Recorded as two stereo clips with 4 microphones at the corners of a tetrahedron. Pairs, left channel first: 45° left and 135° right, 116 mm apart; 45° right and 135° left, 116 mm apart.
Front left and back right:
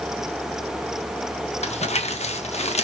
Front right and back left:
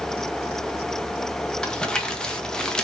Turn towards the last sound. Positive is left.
turn(degrees=40)